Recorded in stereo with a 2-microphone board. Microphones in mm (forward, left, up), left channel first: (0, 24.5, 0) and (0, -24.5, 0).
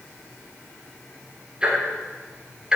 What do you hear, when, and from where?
1.6 s ticking: 20° right (ahead or behind), 3 m